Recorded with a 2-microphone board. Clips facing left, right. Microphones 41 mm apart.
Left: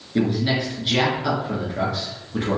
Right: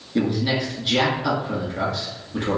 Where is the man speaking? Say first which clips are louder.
Left 1 dB; 5° left (ahead or behind), 1.2 m.